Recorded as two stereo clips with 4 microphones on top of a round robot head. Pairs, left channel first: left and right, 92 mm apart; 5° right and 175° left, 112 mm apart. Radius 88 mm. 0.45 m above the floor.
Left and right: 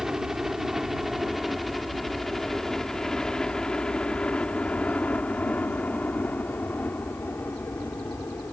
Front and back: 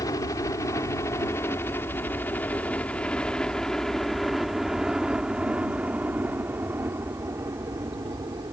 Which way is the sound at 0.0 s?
10° right.